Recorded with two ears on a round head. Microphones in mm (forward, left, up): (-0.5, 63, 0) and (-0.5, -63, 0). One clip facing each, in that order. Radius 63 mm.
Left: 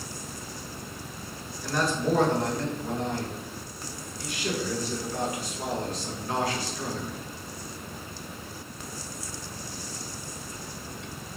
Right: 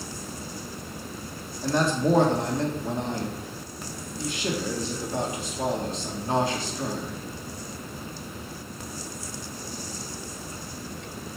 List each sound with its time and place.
1.6 s a man speaking: 20° right (ahead or behind), 1.5 m